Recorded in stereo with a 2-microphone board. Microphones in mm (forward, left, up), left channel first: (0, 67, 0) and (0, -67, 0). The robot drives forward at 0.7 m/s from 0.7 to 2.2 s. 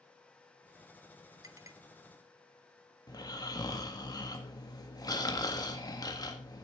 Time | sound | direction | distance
1.4 | a clink | 25° right (ahead or behind) | 0.7 m
3.1 | snoring | 30° left (ahead or behind) | 1.5 m